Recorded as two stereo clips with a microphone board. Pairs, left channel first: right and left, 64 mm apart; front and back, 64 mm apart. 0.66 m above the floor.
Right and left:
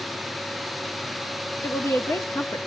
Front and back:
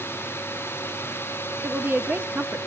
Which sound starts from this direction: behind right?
A woman speaking, at 1.6 s.